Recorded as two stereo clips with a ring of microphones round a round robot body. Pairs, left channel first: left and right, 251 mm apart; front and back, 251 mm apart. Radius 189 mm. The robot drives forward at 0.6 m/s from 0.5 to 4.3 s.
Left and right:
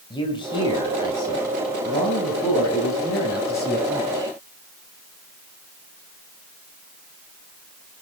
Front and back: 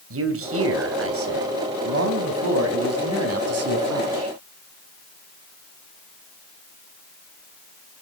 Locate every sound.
0.1 s a man speaking: 165° left, 3 m; by 4.3 s 170° left, 5 m